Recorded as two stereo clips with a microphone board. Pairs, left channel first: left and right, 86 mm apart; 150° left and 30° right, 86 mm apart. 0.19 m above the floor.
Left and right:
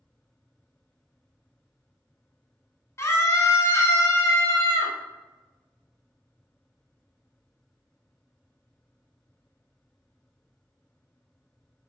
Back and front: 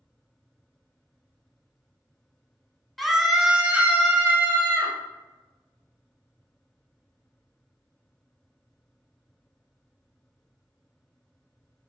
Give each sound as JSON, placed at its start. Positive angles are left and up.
{"t": 3.0, "sound": "a scream", "azimuth_deg": 60, "distance_m": 1.6}